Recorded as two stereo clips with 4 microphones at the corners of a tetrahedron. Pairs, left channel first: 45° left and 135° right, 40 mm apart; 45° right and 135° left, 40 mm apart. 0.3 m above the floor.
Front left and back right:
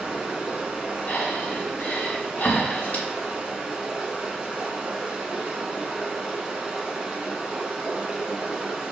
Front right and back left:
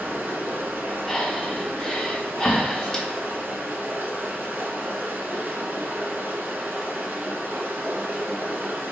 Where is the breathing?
25° left, 1.4 m.